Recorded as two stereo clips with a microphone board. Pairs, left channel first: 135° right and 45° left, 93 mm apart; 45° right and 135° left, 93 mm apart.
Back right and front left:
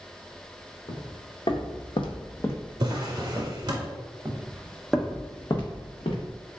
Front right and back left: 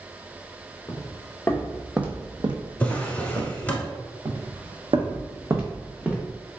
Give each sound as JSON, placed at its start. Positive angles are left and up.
{"t": 0.9, "sound": "footsteps", "azimuth_deg": -100, "distance_m": 1.2}
{"t": 2.8, "sound": "a drawer", "azimuth_deg": 20, "distance_m": 0.7}
{"t": 4.2, "sound": "footsteps", "azimuth_deg": 100, "distance_m": 0.9}